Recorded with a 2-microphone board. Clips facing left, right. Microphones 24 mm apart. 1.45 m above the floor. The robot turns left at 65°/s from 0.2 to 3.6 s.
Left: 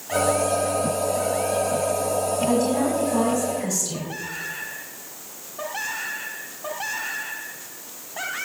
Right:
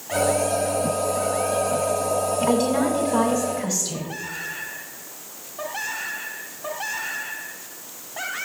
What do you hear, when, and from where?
2.5 s a woman speaking: 80° right, 2.5 m; by 4.1 s 155° right, 2.5 m